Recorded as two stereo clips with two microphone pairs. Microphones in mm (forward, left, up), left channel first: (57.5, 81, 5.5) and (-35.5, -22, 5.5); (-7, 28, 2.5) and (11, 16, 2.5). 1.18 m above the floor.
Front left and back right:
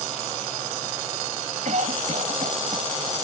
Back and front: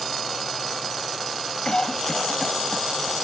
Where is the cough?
165° right.